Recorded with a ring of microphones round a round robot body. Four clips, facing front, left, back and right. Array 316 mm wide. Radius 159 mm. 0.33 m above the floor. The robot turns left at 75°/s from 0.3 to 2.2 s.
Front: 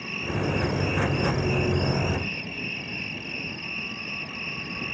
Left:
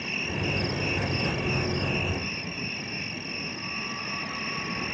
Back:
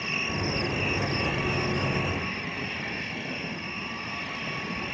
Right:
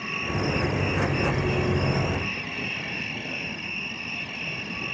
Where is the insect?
160° left; by 4.9 s 15° left.